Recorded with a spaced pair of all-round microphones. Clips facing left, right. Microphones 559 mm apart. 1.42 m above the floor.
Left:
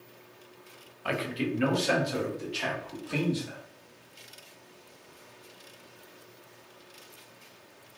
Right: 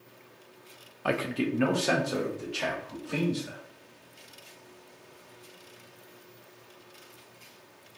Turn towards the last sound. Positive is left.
turn(degrees=-65)  # may be behind; listen again after turning